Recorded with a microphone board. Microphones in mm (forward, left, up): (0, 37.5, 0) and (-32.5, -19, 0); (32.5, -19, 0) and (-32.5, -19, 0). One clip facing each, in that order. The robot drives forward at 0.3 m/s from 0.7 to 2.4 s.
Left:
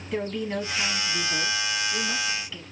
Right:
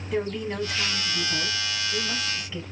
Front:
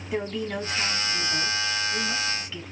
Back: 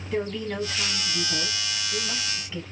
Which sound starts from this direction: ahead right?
A woman speaking, at 0.1 s.